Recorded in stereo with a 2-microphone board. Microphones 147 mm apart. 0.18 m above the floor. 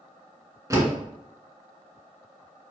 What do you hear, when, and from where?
0.7 s a door slam: 25° right (ahead or behind), 1.8 m